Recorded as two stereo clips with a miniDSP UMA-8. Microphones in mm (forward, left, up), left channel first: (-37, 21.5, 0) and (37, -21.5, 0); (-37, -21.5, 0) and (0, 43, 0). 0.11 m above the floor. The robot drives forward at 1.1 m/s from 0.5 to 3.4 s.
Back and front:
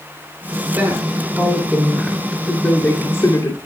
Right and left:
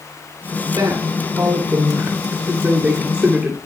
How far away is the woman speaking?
About 3 m.